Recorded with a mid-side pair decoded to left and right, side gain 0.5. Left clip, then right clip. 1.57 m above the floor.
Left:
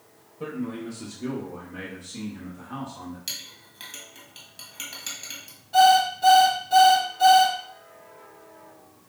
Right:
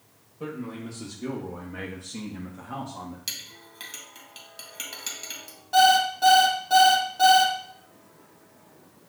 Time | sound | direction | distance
0.4 | a man speaking | 5° left | 1.3 m
3.3 | a clink | 20° right | 1.7 m
5.7 | an alarm clock | 60° right | 2.5 m